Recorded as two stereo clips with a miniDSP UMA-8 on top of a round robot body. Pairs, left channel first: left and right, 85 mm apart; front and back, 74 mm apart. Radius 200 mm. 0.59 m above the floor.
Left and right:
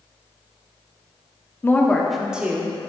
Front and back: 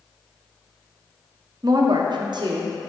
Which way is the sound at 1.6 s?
150° left.